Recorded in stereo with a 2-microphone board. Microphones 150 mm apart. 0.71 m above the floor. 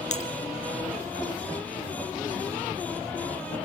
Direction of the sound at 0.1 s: 55° left (ahead or behind).